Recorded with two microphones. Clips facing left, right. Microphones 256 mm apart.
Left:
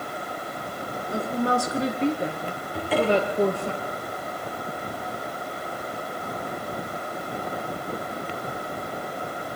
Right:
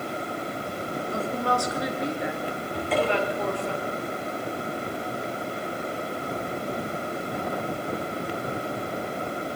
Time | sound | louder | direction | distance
1.1 | a woman speaking | left 4 dB | 15° left (ahead or behind) | 2.5 m
2.7 | a cupboard door | left 3 dB | 5° left (ahead or behind) | 8 m